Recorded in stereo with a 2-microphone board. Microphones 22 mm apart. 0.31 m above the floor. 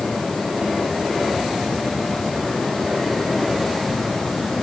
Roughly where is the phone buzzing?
No phone buzzing in this recording.